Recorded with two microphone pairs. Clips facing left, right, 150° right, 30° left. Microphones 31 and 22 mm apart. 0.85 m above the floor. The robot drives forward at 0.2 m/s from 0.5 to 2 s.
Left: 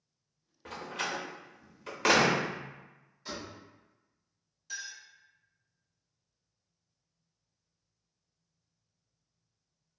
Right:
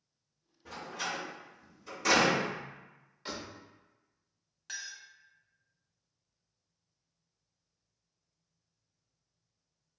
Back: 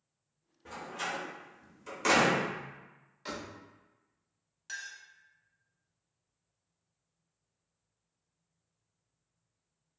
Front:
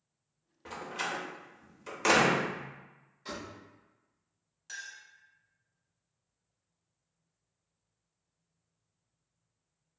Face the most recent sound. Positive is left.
turn(degrees=-85)